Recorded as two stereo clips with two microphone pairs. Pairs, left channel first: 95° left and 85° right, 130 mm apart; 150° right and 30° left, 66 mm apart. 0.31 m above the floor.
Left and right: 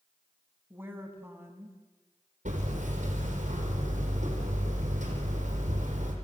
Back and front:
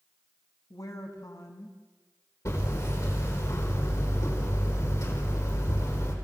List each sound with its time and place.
0.7 s a woman speaking: 160° right, 3 m
2.5 s hammering: 110° right, 5 m